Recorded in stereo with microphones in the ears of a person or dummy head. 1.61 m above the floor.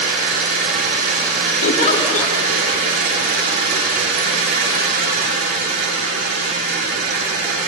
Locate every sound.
0.0 s an engine running: 70° right (ahead or behind), 8.5 m
1.6 s a giggle: 45° left (ahead or behind), 2 m